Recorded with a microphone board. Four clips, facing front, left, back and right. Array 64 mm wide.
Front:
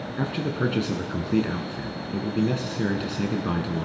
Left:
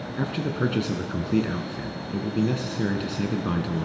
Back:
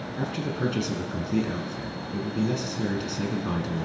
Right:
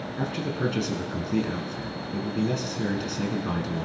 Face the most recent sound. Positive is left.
turn(degrees=40)